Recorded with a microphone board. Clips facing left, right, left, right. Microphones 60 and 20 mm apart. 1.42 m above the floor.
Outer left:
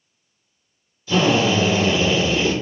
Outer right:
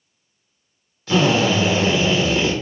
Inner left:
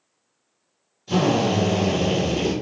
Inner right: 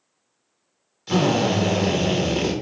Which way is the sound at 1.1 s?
65° right (ahead or behind).